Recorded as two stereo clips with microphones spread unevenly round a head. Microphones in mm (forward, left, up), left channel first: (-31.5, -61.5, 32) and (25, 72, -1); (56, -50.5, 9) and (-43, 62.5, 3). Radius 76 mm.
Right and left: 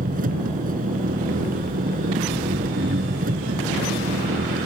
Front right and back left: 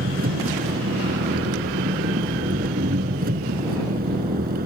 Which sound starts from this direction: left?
An engine running, at 0.0 s.